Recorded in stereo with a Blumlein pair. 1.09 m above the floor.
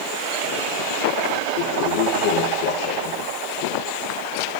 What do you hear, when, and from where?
1.6 s a toilet flushing: 45° left, 8.5 m